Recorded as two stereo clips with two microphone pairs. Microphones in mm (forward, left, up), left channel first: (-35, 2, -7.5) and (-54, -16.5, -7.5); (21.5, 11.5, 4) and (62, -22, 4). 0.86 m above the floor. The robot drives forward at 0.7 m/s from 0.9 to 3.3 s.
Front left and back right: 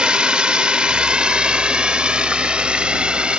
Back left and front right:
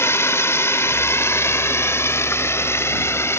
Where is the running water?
175° left.